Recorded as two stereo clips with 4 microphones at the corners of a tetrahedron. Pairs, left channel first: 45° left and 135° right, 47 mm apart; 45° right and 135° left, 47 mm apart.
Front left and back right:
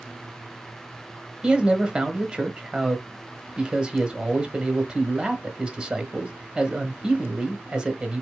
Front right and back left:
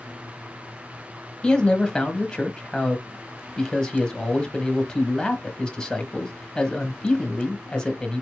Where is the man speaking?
95° right, 1.1 m.